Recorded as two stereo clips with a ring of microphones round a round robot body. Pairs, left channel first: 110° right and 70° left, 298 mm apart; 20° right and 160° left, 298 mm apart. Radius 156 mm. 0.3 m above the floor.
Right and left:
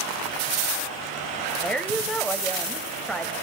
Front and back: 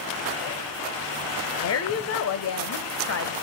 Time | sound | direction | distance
1.6 | a woman speaking | 25° right | 1.3 m